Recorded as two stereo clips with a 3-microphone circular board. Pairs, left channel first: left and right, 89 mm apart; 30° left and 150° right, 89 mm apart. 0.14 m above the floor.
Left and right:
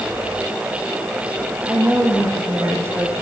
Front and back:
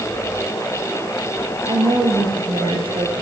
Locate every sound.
1.7 s a woman speaking: 155° right, 7 m